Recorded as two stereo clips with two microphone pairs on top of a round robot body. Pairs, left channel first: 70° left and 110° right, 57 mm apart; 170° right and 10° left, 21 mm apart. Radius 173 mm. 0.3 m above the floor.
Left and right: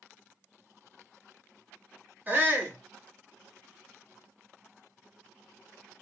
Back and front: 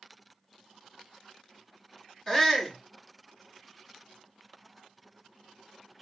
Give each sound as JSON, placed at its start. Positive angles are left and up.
{"t": 2.3, "sound": "a shout", "azimuth_deg": -105, "distance_m": 1.8}